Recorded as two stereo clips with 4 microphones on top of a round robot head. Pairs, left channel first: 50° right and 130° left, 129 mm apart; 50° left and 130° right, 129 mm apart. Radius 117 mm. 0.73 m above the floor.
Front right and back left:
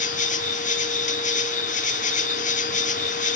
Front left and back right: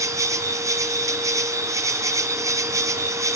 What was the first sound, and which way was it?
An insect, 65° right.